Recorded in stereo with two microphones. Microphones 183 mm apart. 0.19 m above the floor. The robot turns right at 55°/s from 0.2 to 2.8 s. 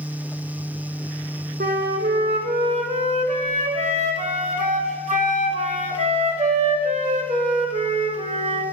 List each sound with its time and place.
1.6 s a flute: 110° right, 0.6 m; by 8.6 s 45° right, 0.6 m